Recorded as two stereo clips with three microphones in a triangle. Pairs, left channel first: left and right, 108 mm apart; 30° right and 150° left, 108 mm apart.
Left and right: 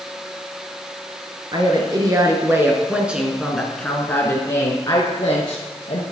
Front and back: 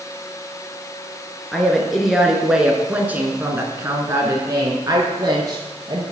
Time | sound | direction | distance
1.5 | a woman speaking | 115° right | 1.9 m